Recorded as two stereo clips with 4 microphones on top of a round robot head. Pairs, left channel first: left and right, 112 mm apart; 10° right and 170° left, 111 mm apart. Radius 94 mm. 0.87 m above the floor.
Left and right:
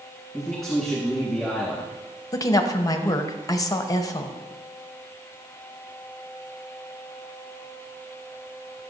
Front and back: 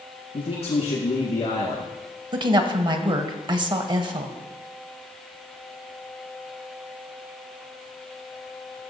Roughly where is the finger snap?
No finger snap in this recording.